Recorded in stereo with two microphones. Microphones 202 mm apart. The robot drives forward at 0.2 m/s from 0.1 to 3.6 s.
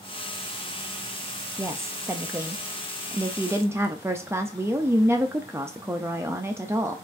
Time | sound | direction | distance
1.6 | a woman speaking | 10° right (ahead or behind) | 0.5 m